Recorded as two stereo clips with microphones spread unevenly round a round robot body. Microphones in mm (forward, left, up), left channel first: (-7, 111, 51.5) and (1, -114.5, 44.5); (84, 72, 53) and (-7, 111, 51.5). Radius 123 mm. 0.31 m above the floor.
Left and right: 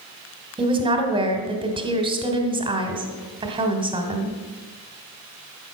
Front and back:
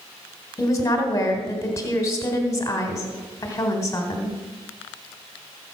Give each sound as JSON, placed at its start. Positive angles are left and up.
{"t": 0.6, "sound": "a woman speaking", "azimuth_deg": -45, "distance_m": 1.6}